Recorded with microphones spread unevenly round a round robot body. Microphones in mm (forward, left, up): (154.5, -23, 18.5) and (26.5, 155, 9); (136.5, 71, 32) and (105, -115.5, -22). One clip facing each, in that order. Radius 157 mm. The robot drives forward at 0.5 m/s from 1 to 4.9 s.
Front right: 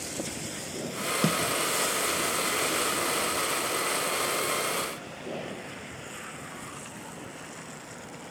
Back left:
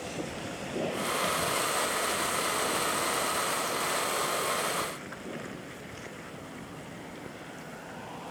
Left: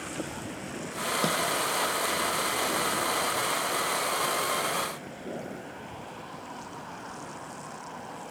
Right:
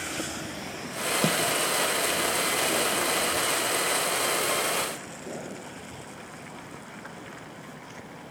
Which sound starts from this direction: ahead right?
A snare drum, at 1.2 s.